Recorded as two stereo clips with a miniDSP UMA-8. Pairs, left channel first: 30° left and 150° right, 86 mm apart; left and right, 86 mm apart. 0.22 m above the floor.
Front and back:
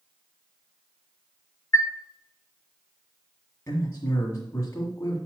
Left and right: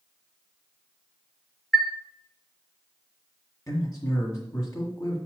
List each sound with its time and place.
1.7 s a chime: straight ahead, 1.2 m
3.7 s a man speaking: 70° left, 1.6 m